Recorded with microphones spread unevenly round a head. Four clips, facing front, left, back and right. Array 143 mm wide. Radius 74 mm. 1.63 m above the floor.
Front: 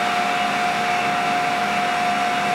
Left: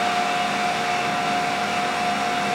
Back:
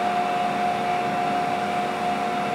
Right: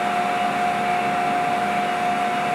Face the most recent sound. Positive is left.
No sound to turn to.